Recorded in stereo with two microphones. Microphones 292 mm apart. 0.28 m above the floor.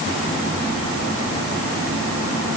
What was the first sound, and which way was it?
Only background noise.